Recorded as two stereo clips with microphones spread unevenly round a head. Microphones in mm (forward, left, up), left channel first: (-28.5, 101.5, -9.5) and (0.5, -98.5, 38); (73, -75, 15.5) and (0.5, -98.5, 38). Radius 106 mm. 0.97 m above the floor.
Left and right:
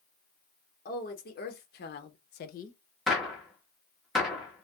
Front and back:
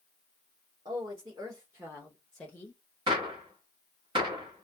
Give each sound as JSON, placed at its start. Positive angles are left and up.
{"t": 0.8, "sound": "a woman speaking", "azimuth_deg": 140, "distance_m": 1.3}
{"t": 3.1, "sound": "a gunshot", "azimuth_deg": -170, "distance_m": 0.9}